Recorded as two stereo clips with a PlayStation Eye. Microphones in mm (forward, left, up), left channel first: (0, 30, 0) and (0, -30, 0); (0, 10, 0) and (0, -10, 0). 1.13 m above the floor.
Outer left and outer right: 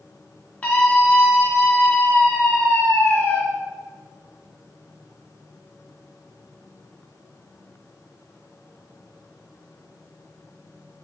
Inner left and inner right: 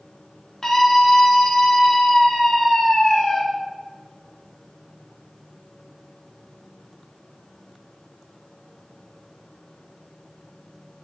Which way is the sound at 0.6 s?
20° left (ahead or behind).